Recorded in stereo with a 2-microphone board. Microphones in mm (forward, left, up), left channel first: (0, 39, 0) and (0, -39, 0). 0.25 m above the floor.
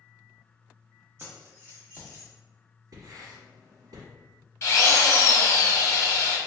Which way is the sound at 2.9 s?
55° right (ahead or behind).